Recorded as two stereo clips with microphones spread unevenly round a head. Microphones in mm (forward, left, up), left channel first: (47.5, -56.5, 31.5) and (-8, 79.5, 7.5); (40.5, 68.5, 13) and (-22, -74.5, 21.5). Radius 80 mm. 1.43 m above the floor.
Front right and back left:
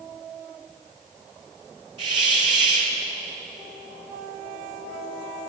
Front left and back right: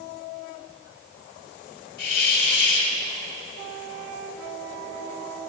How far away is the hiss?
About 1.6 m.